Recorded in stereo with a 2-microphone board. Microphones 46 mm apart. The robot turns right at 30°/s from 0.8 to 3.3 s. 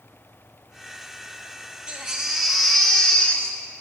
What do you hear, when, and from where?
1.9 s a baby crying: 20° right, 0.8 m; by 3.6 s 20° left, 0.8 m